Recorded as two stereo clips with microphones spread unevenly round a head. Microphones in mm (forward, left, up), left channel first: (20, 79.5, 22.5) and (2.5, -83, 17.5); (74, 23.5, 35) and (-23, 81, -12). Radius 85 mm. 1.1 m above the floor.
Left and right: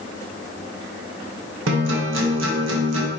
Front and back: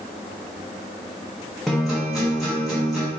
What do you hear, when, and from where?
1.7 s a guitar: 110° right, 0.7 m